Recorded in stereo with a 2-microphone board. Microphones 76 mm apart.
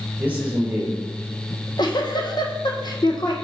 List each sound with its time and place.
0.2 s a man speaking: 20° right (ahead or behind), 3 m
1.5 s a giggle: 65° left (ahead or behind), 1.1 m